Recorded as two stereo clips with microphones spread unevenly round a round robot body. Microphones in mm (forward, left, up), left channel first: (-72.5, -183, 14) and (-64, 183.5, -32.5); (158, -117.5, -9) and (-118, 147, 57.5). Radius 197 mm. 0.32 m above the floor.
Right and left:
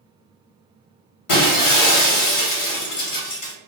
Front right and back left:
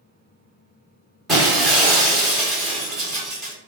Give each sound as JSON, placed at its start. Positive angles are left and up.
{"t": 1.3, "sound": "breaking glass", "azimuth_deg": -130, "distance_m": 0.9}